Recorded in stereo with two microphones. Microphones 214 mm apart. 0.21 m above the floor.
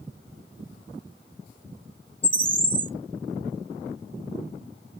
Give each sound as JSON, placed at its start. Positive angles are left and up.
{"t": 2.2, "sound": "a bird", "side_deg": -65, "distance_m": 1.2}